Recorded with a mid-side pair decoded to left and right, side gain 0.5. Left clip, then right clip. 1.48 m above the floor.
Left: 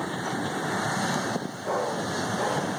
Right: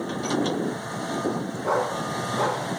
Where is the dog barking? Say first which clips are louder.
Right 3 dB; 50° right, 4.5 m.